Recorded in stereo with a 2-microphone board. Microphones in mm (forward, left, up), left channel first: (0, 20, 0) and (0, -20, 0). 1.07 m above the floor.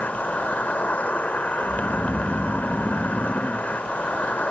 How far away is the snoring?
About 0.9 m.